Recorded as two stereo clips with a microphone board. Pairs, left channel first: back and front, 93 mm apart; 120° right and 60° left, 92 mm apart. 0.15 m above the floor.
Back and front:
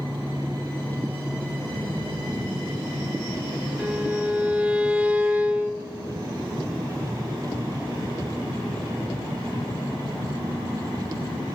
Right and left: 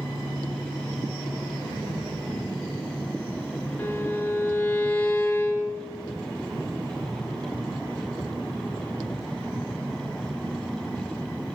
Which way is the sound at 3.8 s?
65° right.